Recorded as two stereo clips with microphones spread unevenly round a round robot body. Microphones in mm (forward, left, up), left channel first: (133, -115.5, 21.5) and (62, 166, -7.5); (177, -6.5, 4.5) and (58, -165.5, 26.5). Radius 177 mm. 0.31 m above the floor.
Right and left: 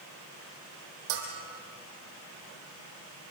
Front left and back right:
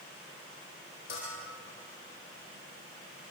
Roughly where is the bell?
Behind left.